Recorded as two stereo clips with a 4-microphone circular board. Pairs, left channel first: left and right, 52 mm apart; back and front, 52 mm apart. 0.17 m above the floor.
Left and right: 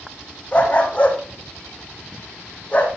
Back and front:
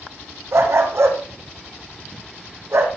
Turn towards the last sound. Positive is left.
turn(degrees=25)